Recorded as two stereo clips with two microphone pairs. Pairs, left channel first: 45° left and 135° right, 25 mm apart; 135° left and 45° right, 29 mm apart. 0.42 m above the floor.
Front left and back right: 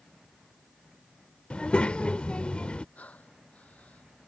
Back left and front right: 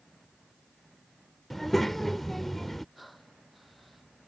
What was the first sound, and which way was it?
A child speaking, 55° left.